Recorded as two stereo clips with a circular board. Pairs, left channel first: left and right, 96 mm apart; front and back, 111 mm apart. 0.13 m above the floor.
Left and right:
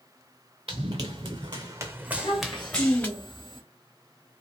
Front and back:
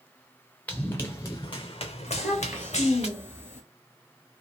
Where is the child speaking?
115° left, 1.4 m.